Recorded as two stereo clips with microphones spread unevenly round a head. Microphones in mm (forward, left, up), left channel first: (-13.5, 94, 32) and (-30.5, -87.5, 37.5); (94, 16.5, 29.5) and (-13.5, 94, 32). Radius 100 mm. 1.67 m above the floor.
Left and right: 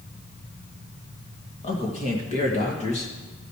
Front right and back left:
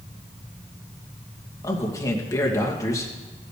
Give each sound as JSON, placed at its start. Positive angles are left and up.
{"t": 1.6, "sound": "a man speaking", "azimuth_deg": 30, "distance_m": 2.5}